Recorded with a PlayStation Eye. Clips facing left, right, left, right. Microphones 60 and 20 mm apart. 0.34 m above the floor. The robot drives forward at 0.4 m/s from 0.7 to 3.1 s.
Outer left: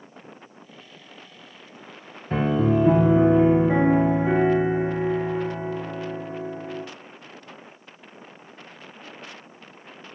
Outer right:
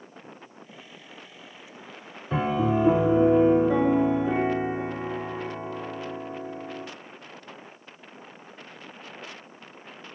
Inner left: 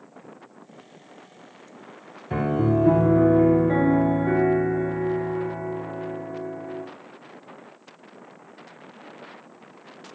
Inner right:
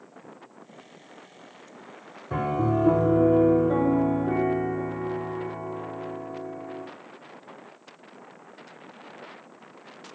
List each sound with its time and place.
2.3 s a piano: 45° left (ahead or behind), 1.1 m; by 6.8 s 60° left (ahead or behind), 0.9 m